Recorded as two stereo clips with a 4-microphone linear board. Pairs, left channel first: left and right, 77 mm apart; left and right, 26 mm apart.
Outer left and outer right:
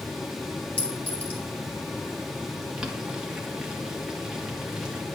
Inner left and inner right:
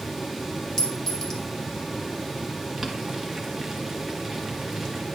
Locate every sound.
0.8 s a clink: 20° left (ahead or behind), 1.8 m
2.8 s boiling: 10° right (ahead or behind), 1.4 m